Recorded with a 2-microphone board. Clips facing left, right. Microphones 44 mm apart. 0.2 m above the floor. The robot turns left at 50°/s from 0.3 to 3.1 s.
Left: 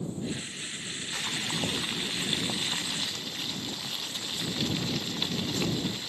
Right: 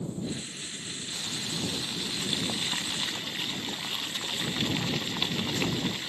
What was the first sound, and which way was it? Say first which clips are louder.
Boiling: left 3 dB; 75° left.